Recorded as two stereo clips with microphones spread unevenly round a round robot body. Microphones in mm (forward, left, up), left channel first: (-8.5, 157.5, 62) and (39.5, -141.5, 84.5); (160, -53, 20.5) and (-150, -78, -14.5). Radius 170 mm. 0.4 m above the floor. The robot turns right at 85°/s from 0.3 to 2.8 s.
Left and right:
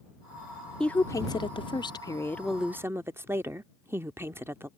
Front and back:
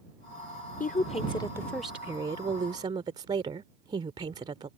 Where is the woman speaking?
30° left; by 4.7 s 160° right.